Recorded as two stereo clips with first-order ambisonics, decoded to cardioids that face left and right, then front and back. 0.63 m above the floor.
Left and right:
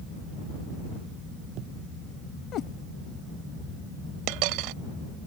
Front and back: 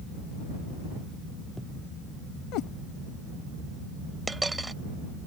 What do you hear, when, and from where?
2.5 s a cat meowing: 40° left
4.3 s a dropped coin: 100° right